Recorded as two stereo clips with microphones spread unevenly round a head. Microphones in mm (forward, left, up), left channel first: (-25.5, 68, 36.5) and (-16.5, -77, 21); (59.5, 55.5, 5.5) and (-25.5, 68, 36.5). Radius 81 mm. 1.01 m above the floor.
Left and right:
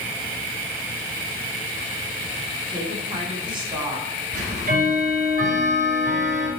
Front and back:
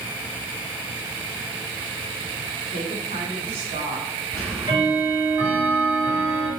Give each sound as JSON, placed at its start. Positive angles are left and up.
{"t": 2.7, "sound": "a woman speaking", "azimuth_deg": -145, "distance_m": 2.0}
{"t": 4.3, "sound": "ticking", "azimuth_deg": -115, "distance_m": 4.0}